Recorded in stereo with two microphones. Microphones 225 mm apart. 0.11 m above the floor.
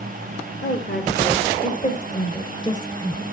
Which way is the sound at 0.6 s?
45° left (ahead or behind).